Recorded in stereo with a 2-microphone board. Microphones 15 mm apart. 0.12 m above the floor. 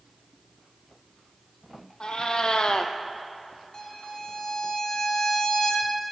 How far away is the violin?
About 1.8 m.